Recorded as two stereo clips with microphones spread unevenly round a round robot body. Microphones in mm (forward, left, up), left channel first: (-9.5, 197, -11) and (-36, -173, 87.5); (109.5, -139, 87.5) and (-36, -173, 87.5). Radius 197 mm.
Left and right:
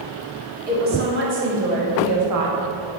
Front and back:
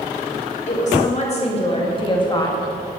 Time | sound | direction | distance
0.7 | a woman speaking | 20° right | 3 m